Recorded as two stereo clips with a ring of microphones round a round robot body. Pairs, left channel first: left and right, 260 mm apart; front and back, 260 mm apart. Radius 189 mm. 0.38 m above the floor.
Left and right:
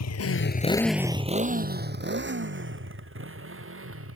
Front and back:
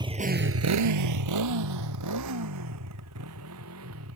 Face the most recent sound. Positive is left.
turn(degrees=-125)